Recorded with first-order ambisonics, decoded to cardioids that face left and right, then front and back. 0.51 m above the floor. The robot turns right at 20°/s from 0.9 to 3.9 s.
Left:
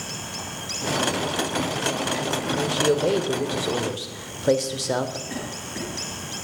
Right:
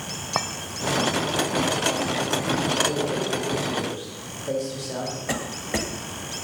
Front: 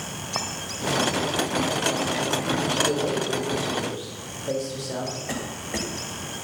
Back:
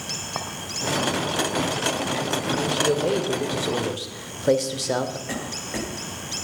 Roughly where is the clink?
Right.